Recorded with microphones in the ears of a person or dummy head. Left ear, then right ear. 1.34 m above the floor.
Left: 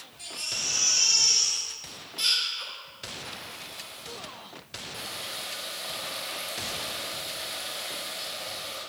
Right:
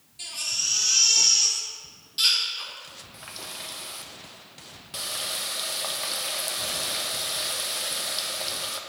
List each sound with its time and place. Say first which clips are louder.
0.2 s a baby crying: right 3 dB; 30° right (ahead or behind), 1.5 m
3.1 s a running tap: right 3 dB; 65° right (ahead or behind), 0.9 m